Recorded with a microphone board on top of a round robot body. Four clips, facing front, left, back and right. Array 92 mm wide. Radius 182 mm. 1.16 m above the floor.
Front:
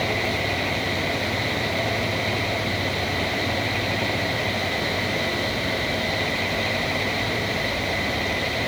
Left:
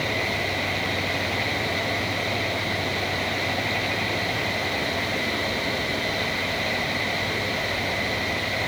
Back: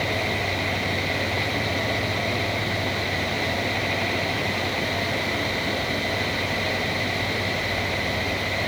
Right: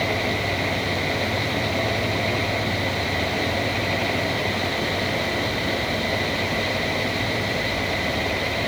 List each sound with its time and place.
Only background noise.